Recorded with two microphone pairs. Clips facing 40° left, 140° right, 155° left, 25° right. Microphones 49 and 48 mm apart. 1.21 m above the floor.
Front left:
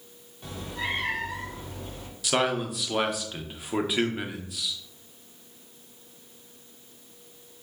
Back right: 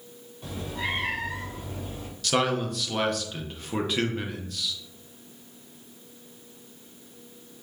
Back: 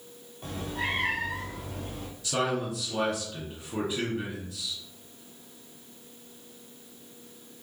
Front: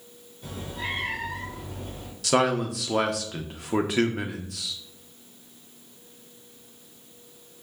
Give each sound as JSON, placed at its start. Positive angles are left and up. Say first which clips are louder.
{"t": 0.4, "sound": "a cat meowing", "louder": "back right 1 dB, back 2 dB", "azimuth_deg": 135, "distance_m": 1.9}
{"t": 2.2, "sound": "a man speaking", "louder": "back right 1 dB, front 6 dB", "azimuth_deg": -40, "distance_m": 0.8}